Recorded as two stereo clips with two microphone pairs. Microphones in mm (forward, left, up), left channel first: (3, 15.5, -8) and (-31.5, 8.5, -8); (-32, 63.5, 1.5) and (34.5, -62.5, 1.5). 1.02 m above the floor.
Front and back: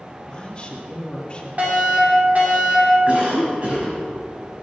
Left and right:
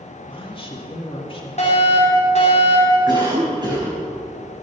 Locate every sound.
0.3 s a woman speaking: 70° left, 1.7 m
1.6 s a fire alarm: 155° left, 5 m
3.1 s a cough: 120° right, 6 m